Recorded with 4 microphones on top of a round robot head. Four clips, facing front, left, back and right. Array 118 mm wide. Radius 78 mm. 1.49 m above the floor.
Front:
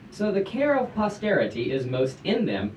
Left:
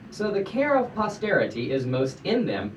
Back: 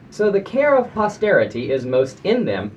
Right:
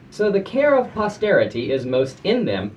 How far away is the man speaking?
About 0.8 m.